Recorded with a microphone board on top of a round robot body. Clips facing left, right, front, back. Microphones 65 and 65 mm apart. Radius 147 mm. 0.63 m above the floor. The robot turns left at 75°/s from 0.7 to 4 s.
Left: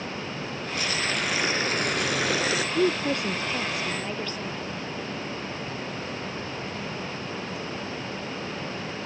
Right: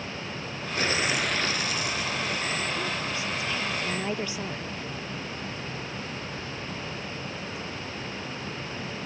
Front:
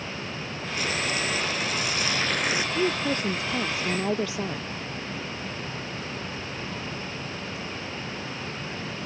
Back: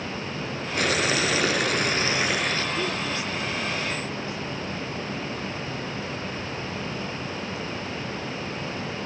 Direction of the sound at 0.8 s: 145° right.